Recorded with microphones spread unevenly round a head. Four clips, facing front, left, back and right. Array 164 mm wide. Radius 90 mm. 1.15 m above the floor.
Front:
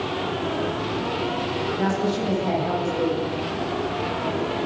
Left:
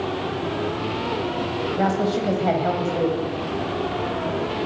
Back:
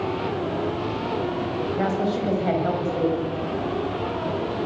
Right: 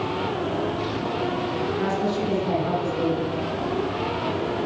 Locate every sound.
1.8 s a woman speaking: 115° left, 8 m